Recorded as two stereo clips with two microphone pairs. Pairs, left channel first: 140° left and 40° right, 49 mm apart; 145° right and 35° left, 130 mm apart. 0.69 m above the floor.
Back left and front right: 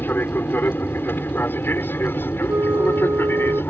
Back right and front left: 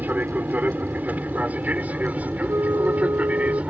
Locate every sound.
0.0 s an aircraft: 110° left
2.5 s a flute: 35° right